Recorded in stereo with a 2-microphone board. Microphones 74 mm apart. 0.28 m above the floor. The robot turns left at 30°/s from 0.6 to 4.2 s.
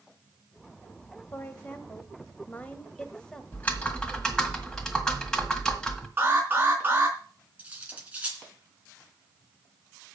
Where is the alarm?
25° right (ahead or behind), 3 m.